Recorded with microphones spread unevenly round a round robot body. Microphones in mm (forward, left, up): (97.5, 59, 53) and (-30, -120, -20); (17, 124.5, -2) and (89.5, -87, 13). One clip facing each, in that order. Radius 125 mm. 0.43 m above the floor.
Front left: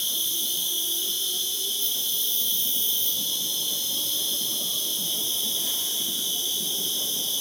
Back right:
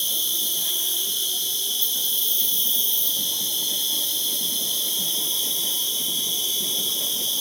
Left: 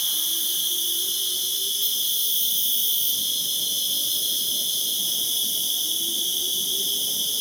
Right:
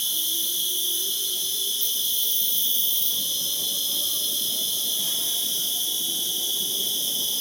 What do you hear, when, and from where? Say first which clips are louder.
0.0 s an insect: back right 2 dB, right 2 dB; 120° right, 1.7 m